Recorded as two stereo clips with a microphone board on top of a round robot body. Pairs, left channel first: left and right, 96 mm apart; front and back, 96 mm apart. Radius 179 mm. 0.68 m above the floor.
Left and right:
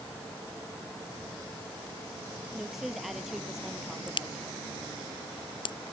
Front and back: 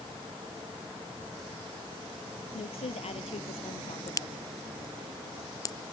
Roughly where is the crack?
Ahead left.